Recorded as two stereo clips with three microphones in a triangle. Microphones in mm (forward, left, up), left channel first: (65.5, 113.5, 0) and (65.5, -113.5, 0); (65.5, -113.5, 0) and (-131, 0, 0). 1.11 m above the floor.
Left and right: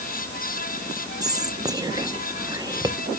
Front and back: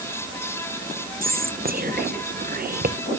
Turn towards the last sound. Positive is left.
turn(degrees=-160)